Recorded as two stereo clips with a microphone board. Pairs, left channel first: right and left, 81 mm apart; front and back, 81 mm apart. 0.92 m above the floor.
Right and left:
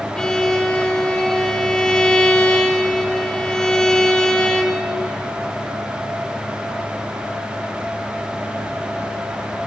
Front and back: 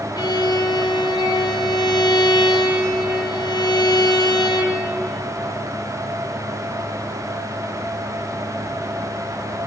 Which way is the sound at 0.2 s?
10° right.